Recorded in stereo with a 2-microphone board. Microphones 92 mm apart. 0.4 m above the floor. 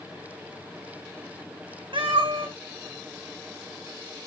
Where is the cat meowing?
75° right (ahead or behind), 1.9 m.